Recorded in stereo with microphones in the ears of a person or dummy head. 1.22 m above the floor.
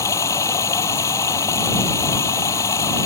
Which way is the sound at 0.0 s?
20° left (ahead or behind).